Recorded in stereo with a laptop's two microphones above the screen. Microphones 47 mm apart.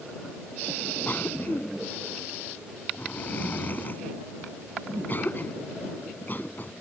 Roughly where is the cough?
Left.